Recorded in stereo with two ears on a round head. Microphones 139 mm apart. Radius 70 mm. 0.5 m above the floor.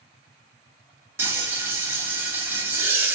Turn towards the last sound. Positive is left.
turn(degrees=-15)  # may be behind; listen again after turning